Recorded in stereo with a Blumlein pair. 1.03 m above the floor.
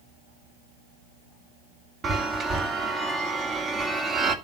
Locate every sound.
2.0 s a chime: 20° right, 2 m